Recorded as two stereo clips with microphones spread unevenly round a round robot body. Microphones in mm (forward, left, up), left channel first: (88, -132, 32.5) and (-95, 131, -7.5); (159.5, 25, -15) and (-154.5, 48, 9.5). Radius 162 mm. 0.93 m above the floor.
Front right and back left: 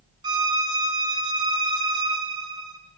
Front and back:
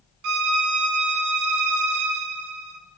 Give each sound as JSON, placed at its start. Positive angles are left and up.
{"t": 0.2, "sound": "a violin", "azimuth_deg": -155, "distance_m": 0.5}